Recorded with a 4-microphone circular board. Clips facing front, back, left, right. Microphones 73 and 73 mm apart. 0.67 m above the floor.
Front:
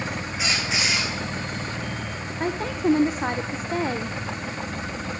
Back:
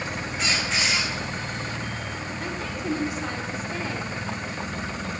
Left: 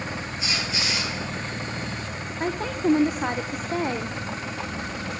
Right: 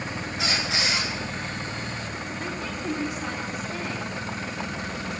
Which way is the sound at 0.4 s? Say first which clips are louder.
Even, right 3 dB; 85° right.